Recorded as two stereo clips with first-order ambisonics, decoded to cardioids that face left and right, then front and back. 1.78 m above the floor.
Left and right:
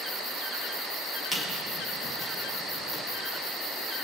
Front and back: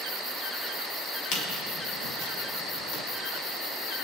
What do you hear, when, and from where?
1.3 s a squeak: 5° left, 3 m